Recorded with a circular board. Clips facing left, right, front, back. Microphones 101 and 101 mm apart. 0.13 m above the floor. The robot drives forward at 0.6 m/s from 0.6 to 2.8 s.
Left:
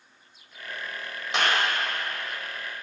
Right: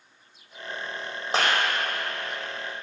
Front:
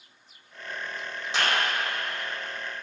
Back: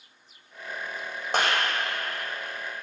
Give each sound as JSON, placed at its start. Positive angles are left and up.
{"t": 1.3, "sound": "a clap", "azimuth_deg": -140, "distance_m": 4.5}